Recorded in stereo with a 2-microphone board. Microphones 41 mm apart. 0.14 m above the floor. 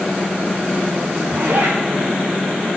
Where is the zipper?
85° right, 5 m.